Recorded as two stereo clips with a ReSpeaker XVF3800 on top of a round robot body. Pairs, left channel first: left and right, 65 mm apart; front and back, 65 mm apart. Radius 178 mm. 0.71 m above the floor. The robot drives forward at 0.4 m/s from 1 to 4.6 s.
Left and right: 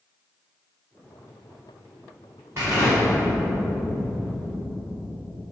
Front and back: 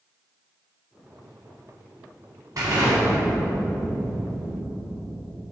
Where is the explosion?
145° right, 1.2 m; by 5.4 s 160° right, 1.9 m.